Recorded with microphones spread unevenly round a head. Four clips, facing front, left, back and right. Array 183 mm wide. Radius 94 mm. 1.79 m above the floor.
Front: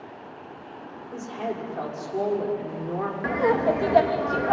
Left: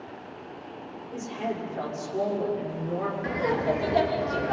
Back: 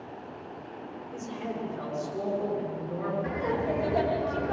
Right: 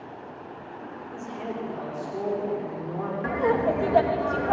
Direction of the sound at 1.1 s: 20° left.